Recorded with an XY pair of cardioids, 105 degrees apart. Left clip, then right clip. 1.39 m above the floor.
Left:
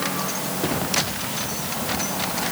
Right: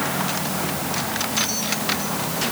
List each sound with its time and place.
Only background noise.